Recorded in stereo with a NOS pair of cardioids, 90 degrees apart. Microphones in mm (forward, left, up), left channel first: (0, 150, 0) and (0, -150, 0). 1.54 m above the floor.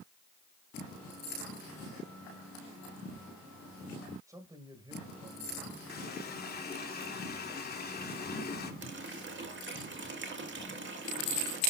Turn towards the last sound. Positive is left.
turn(degrees=-40)